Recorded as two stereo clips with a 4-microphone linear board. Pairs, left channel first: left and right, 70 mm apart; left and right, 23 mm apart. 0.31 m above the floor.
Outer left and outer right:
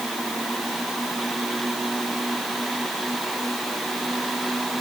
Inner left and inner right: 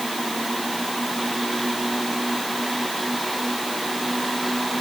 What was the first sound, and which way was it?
Only background noise.